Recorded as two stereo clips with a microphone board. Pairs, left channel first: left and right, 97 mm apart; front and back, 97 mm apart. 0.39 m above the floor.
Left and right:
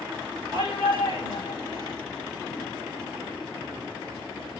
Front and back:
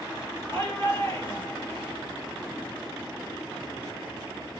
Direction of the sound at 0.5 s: 60° right.